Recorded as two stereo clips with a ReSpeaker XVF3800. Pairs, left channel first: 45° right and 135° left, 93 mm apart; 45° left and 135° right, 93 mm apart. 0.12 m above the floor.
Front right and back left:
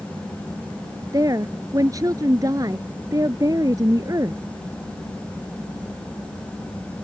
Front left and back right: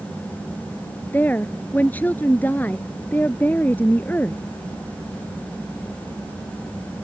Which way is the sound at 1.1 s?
110° left.